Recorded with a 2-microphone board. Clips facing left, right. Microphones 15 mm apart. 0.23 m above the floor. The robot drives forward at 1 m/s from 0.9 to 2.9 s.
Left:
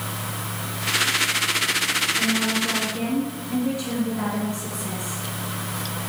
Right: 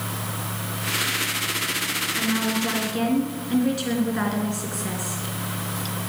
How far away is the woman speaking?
About 3.5 m.